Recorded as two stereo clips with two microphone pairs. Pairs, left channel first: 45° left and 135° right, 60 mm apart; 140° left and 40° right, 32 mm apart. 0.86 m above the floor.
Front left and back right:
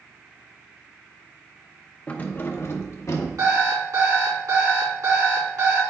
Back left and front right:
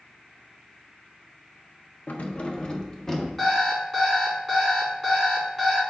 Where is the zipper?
No zipper in this recording.